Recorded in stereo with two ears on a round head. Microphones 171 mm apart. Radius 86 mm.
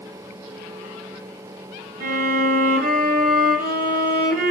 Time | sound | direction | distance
2.0 | a violin | 50° right (ahead or behind) | 0.8 m